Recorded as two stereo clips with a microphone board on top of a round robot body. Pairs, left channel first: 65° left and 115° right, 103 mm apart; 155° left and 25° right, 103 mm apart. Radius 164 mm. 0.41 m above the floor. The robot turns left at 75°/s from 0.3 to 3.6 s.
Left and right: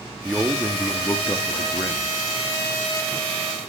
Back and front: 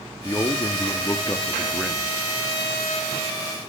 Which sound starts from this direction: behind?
A man speaking, at 0.2 s.